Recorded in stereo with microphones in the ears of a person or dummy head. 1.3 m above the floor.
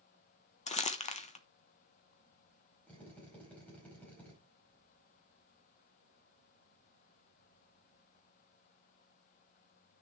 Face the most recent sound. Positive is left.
turn(degrees=5)  # may be behind; listen again after turning